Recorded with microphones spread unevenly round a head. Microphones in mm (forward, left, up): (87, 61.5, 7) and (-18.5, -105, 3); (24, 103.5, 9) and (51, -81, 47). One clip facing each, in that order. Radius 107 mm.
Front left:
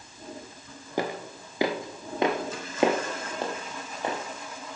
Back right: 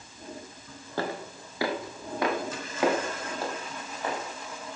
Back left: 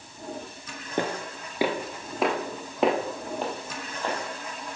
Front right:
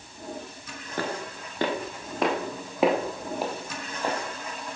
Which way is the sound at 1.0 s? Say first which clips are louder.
Front left 2 dB, back left 3 dB; 25° left.